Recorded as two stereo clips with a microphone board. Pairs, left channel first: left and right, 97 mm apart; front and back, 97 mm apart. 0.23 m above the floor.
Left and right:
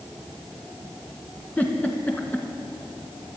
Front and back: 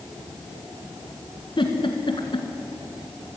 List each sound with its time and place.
1.6 s a giggle: 15° left, 1.6 m